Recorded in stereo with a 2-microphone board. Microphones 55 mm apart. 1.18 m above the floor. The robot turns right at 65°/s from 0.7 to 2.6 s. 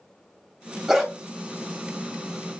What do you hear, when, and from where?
0.9 s a dog barking: 10° right (ahead or behind), 1.8 m; by 1.1 s 5° left (ahead or behind), 1.8 m